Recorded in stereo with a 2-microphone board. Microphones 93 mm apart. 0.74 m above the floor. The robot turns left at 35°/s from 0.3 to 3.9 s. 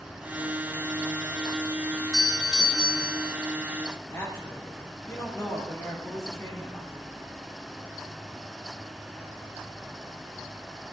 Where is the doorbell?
165° right, 1.1 m; by 3.3 s 150° left, 1.1 m.